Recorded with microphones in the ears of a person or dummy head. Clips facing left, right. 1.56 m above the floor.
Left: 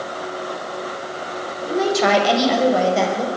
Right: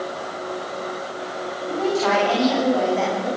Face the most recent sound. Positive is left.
turn(degrees=85)